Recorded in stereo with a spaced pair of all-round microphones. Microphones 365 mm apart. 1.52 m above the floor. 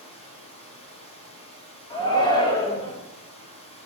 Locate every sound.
0.0 s running water: 15° left (ahead or behind), 0.8 m
1.9 s a shout: 10° left (ahead or behind), 0.9 m